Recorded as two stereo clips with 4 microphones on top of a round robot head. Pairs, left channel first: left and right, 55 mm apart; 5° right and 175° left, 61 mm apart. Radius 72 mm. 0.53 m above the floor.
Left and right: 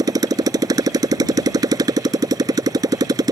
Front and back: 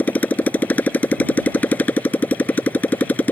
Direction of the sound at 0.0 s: 75° right.